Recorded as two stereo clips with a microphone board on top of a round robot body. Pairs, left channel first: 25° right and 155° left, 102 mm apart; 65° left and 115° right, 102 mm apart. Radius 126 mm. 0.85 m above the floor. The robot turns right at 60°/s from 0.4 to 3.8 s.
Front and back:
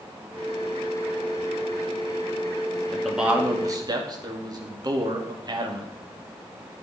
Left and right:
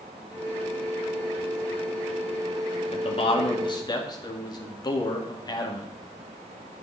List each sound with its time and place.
2.9 s a man speaking: 60° left, 2.5 m; by 5.9 s 110° left, 2.5 m